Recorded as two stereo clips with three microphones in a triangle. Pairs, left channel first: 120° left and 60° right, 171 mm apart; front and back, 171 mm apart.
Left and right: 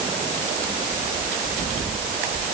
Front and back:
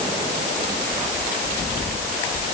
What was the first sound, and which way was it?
Only background noise.